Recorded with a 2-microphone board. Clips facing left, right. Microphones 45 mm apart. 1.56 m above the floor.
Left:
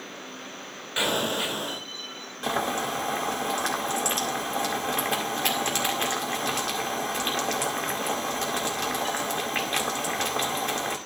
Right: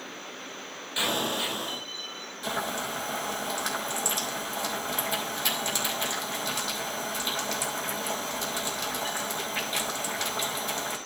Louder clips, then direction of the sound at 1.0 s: Left 2 dB; 40° left (ahead or behind).